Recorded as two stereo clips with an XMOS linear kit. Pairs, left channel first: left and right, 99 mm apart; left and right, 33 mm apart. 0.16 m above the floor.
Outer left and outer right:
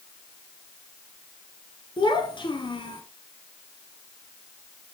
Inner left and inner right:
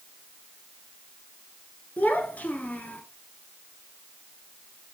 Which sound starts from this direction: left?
A child speaking, at 2.0 s.